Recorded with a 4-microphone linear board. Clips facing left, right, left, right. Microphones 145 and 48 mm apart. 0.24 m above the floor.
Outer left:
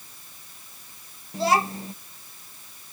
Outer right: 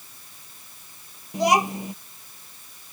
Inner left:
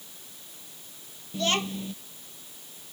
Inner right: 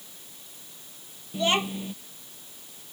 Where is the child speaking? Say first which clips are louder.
Outer right 2 dB, inner right 2 dB; 15° right (ahead or behind).